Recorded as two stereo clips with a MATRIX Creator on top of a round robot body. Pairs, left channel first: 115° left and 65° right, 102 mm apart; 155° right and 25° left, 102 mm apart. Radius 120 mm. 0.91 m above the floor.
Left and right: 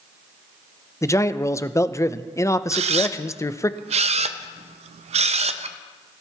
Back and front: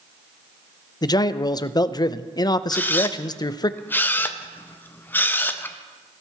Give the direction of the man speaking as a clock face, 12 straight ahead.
6 o'clock.